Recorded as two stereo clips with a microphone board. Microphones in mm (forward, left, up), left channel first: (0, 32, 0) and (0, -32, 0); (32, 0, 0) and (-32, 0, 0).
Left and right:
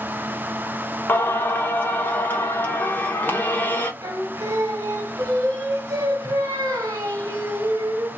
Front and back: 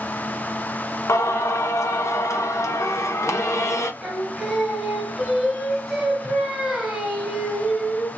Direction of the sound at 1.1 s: 35° left.